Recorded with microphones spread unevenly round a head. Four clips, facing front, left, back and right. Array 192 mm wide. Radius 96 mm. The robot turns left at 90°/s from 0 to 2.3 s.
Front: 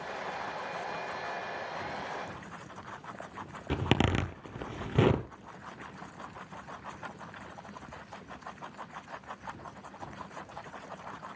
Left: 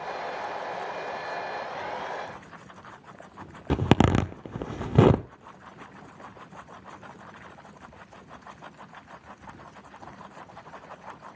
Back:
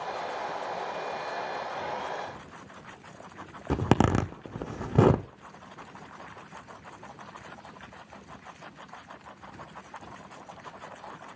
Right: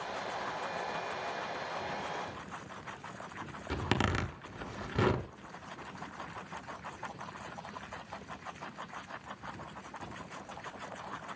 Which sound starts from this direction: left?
A zipper, at 3.7 s.